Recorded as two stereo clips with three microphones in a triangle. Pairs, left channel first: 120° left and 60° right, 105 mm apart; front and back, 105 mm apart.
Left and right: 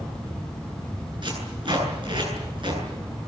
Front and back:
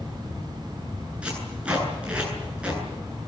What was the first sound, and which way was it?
Tape being pulled, 100° right.